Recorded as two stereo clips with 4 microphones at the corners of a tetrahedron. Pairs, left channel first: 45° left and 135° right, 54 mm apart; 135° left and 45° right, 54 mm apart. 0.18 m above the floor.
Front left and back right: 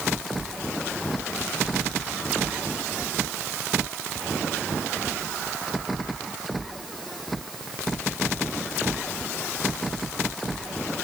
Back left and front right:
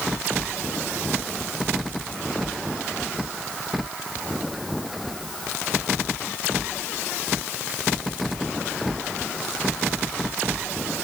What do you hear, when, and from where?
Only background noise.